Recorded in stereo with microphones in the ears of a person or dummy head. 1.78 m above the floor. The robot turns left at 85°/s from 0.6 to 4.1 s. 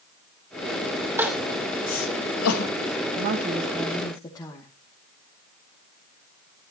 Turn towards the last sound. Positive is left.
turn(degrees=155)